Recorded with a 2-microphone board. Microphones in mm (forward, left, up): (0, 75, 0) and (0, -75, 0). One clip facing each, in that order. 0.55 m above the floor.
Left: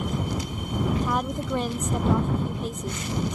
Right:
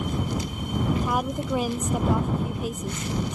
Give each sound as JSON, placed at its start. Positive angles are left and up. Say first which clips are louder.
{"t": 1.0, "sound": "a woman speaking", "louder": "even", "side_deg": -5}